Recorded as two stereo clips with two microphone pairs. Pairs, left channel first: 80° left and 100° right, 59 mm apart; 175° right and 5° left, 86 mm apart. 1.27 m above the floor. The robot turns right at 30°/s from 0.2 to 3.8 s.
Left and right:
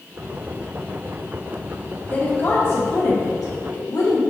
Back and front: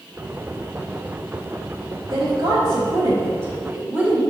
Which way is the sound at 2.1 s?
25° left.